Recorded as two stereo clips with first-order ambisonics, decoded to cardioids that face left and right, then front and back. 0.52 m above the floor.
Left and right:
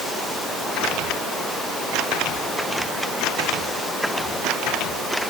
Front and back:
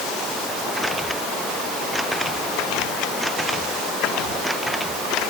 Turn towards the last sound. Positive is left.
No sound to turn to.